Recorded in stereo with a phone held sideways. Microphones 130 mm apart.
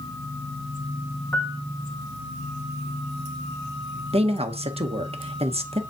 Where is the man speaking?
50° right (ahead or behind), 0.9 m.